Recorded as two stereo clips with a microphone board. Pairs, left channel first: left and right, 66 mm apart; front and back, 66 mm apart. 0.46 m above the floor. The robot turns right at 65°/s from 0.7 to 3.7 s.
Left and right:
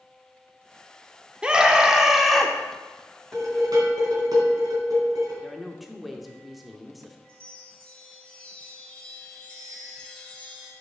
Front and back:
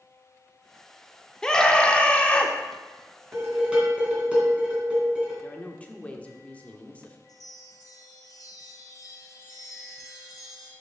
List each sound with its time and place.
1.4 s a scream: 55° right, 0.8 m; by 2.5 s 15° left, 0.8 m
3.3 s dishes clattering: 130° right, 3 m; by 5.3 s 105° right, 3 m
5.4 s a woman speaking: straight ahead, 0.7 m
7.3 s a chime: 15° left, 1.6 m